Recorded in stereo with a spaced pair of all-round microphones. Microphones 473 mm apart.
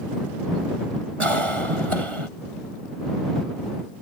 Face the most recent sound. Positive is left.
turn(degrees=-90)